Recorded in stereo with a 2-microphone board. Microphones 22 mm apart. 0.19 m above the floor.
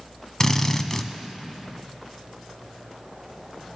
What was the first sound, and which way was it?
A drill, 25° left (ahead or behind).